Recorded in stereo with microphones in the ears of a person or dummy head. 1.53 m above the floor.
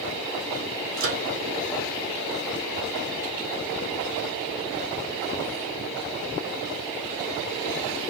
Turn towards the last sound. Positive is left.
turn(degrees=-75)  # may be behind; listen again after turning